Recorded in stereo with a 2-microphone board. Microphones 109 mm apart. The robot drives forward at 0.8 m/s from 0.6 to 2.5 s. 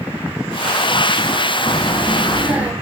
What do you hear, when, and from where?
1.7 s a child speaking: 20° right (ahead or behind), 0.7 m; by 2.7 s 15° right (ahead or behind), 1.0 m